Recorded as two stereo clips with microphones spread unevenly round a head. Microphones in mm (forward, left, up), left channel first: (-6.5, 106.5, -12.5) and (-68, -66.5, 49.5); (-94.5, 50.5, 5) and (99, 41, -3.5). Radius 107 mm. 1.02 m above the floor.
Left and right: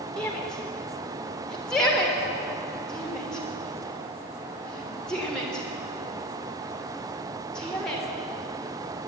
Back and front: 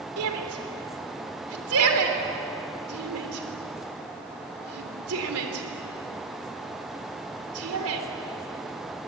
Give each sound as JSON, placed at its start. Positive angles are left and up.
{"t": 0.2, "sound": "a shout", "azimuth_deg": -15, "distance_m": 3.5}